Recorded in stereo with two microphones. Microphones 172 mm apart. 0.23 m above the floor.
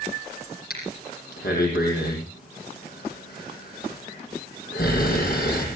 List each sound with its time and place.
0.7 s breathing: 65° left (ahead or behind), 8 m